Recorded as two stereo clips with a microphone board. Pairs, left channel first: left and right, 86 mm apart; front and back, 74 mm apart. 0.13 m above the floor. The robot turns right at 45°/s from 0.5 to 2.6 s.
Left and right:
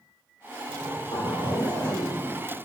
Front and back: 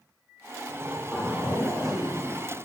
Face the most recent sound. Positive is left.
turn(degrees=165)